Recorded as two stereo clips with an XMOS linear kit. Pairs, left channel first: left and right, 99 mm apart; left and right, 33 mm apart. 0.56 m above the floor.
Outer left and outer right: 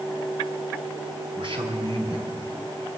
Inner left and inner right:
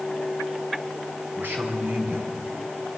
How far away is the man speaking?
About 5.5 m.